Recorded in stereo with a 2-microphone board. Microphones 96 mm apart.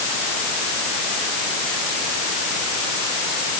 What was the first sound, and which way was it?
Only background noise.